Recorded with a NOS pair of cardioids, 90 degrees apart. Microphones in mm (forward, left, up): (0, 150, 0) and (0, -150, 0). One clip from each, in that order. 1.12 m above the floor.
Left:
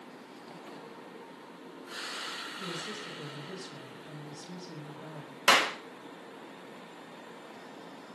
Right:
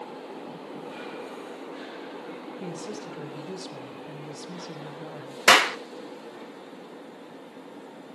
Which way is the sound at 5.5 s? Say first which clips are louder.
Right 6 dB; 45° right.